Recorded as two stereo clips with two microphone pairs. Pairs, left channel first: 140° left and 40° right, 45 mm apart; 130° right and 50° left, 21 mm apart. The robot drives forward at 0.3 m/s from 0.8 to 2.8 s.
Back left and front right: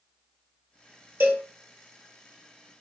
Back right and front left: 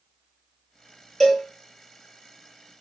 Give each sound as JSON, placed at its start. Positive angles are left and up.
{"t": 1.2, "sound": "a cowbell", "azimuth_deg": -55, "distance_m": 0.7}